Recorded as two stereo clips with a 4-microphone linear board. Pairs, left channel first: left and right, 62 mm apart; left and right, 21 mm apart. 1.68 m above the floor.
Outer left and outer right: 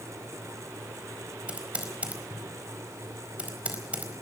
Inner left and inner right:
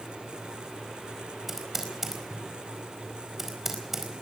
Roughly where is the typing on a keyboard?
Centre.